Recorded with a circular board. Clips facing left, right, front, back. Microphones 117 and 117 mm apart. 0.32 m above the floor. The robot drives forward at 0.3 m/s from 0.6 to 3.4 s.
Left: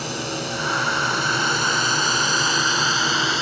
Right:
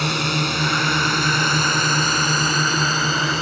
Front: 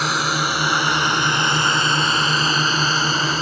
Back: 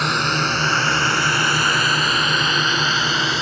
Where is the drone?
85° right; by 3.4 s 45° right.